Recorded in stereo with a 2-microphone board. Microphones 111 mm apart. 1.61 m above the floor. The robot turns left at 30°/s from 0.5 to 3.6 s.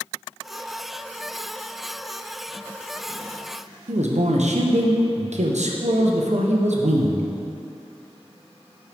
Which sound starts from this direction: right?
A man speaking, at 3.9 s.